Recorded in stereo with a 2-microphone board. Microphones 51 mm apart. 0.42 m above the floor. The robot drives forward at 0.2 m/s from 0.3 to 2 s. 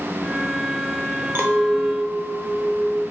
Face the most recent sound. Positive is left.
turn(degrees=-40)  # may be behind; listen again after turning